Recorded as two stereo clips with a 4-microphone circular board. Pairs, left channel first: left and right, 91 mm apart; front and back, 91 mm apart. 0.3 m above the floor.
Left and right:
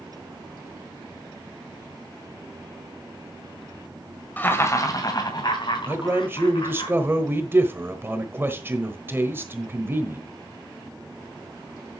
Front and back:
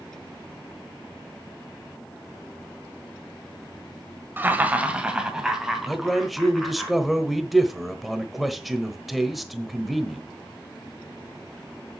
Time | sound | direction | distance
4.4 | laughter | 135° left | 1.7 m
5.9 | a man speaking | 90° right | 1.2 m